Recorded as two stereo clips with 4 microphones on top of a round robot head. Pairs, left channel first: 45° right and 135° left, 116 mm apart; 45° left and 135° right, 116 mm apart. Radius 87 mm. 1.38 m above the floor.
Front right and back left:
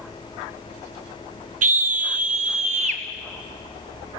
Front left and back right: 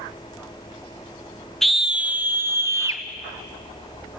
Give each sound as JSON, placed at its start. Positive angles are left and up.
{"t": 1.6, "sound": "a scream", "azimuth_deg": 135, "distance_m": 0.8}